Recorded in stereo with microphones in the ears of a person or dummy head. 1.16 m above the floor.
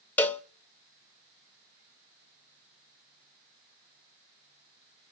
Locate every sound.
0.2 s a cowbell: 10° left (ahead or behind), 0.6 m